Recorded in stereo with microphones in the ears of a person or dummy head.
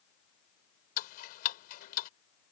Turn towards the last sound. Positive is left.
turn(degrees=50)  # may be behind; listen again after turning